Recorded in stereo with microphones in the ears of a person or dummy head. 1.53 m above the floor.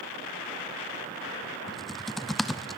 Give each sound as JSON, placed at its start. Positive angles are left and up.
{"t": 1.7, "sound": "typing on a keyboard", "side_deg": 5, "distance_m": 0.5}